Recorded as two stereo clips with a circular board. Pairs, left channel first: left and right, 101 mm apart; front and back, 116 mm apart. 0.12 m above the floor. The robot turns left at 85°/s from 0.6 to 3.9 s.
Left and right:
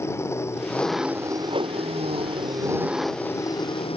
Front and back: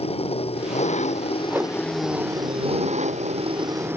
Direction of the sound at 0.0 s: 30° left.